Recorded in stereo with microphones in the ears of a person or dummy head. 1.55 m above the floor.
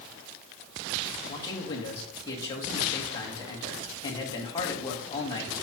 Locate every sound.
1.3 s a man speaking: 20° left (ahead or behind), 2 m